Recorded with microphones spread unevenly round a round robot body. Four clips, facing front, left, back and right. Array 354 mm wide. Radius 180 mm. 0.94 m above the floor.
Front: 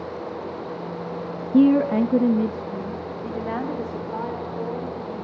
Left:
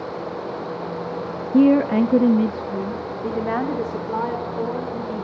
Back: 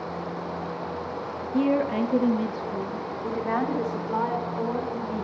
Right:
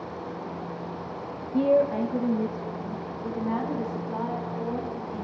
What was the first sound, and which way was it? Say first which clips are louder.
A woman speaking: left 7 dB, front 7 dB; 50° left.